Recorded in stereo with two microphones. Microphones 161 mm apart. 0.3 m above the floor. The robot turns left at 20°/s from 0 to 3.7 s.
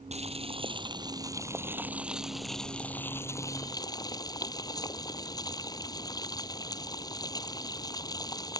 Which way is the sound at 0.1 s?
135° right.